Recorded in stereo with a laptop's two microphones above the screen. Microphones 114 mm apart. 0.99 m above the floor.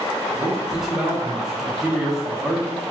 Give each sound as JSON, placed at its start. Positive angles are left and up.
{"t": 0.3, "sound": "a man speaking", "side_deg": -5, "distance_m": 0.7}